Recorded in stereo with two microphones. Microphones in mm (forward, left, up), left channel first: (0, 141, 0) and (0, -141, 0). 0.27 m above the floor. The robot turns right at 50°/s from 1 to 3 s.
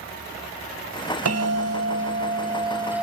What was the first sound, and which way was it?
A bell, 90° right.